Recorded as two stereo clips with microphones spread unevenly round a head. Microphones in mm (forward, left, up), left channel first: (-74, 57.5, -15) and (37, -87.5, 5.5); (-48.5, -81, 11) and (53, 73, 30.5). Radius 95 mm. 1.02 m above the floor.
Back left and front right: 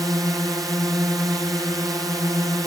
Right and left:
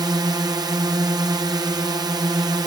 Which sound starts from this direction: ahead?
A drone, at 0.0 s.